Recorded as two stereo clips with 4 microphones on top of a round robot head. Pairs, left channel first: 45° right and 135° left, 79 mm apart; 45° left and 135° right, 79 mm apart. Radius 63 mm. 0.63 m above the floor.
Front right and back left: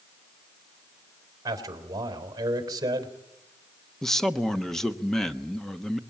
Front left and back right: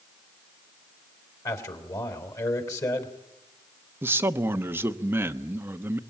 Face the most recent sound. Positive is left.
turn(degrees=-120)